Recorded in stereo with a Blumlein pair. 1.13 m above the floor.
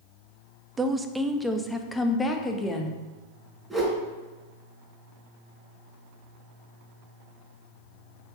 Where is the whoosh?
5° right, 4.5 m.